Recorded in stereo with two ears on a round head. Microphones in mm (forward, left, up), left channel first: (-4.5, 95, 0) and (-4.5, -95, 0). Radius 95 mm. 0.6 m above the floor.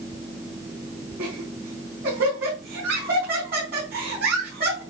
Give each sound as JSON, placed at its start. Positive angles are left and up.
{"t": 1.2, "sound": "laughter", "side_deg": -50, "distance_m": 4.5}